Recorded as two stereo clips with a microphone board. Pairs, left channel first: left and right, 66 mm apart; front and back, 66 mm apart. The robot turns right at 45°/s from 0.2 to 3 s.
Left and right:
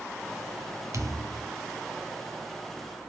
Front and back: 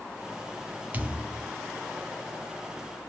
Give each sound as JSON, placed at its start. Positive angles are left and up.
{"t": 0.9, "sound": "a thud", "azimuth_deg": -120, "distance_m": 1.7}